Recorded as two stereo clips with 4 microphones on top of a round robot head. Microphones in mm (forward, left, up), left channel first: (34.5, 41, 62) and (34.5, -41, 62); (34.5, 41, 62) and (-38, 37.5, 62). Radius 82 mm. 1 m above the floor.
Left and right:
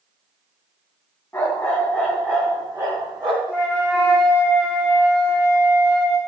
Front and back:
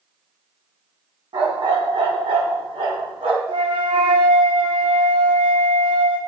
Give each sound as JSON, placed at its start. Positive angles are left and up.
{"t": 1.3, "sound": "a dog barking", "azimuth_deg": 165, "distance_m": 2.5}
{"t": 3.5, "sound": "a flute", "azimuth_deg": -170, "distance_m": 1.5}